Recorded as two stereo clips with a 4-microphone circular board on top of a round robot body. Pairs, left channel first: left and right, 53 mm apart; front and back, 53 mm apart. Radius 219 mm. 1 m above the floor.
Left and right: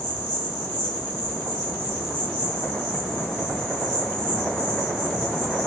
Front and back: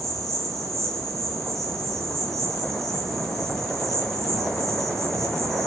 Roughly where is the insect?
Ahead.